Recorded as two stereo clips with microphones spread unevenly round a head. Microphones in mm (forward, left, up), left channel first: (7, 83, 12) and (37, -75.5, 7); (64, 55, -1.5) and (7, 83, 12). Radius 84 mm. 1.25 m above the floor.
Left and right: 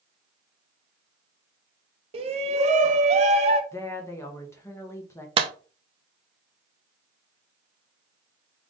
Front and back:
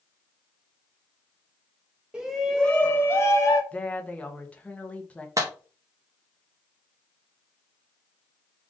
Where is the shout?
115° right, 0.5 m; by 3.6 s 35° right, 0.8 m.